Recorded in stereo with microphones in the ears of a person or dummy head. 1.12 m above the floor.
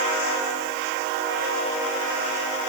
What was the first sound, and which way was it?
Only background noise.